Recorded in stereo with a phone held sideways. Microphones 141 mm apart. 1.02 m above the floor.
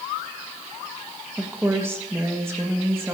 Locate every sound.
1.4 s a woman speaking: 15° right (ahead or behind), 1.2 m; by 3.1 s 20° right (ahead or behind), 2 m